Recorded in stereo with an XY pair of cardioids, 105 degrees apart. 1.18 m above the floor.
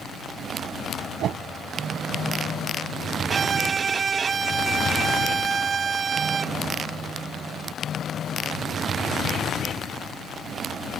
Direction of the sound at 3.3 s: 40° right.